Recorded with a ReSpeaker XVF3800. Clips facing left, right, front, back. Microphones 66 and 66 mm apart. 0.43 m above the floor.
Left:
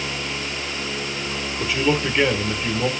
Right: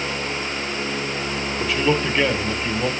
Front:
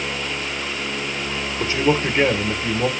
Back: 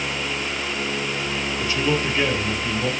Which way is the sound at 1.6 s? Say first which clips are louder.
Even, front 4 dB; straight ahead.